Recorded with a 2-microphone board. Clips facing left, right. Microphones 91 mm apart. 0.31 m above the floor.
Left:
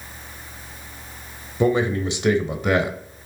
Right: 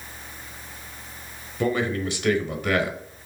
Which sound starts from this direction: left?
A man speaking, at 1.6 s.